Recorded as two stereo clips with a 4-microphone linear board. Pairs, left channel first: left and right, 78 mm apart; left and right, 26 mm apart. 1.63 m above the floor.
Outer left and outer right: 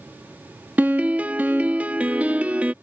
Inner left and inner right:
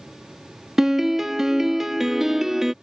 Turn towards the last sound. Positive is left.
turn(degrees=-15)  # may be behind; listen again after turning